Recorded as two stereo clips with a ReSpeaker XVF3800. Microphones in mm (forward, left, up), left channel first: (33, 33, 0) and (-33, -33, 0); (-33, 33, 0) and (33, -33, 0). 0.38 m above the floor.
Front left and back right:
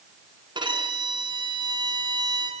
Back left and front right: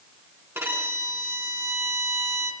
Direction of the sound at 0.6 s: 110° right.